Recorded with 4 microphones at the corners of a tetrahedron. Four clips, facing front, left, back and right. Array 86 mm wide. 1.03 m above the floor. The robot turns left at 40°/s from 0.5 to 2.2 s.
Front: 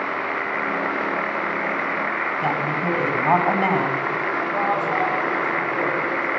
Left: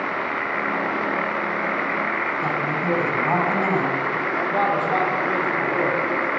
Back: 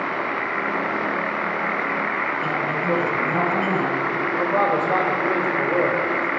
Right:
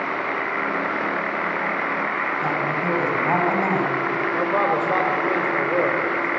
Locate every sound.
2.4 s a woman speaking: 10° right, 4.5 m
4.3 s a man speaking: 130° right, 4 m